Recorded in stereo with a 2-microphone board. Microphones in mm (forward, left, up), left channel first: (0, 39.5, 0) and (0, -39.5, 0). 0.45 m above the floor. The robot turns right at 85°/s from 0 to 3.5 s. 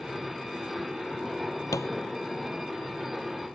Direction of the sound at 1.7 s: 45° left (ahead or behind).